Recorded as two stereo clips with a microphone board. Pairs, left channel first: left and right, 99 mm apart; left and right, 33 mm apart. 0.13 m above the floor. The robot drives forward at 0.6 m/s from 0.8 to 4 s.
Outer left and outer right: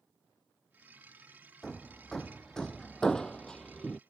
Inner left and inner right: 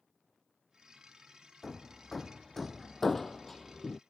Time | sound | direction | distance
1.6 | hammering | 5° left (ahead or behind) | ?